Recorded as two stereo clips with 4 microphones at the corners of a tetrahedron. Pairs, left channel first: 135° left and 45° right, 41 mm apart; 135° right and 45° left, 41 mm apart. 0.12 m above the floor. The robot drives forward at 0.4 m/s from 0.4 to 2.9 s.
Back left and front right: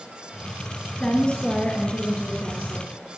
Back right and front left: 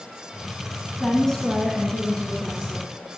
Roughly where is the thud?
I don't hear a thud.